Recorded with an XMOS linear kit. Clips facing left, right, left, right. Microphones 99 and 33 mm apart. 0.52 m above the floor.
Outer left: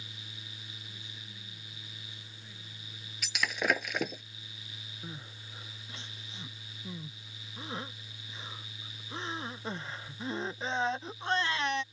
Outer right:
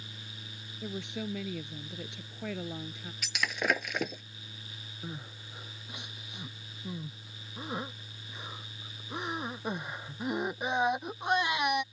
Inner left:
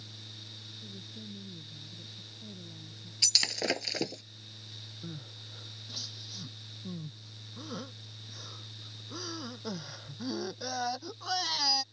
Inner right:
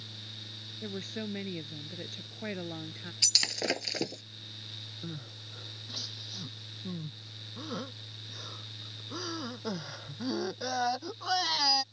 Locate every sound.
0.8 s a woman speaking: 80° right
3.2 s breaking glass: centre (ahead or behind)
5.0 s crying: 15° right (ahead or behind)